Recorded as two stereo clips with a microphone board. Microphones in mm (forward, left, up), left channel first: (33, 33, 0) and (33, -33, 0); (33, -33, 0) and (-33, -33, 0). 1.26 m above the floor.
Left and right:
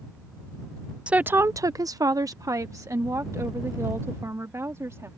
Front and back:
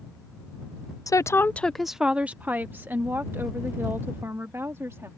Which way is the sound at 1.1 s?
15° right.